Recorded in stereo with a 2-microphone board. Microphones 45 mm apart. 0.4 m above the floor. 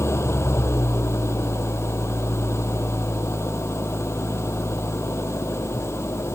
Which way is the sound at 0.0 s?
85° left.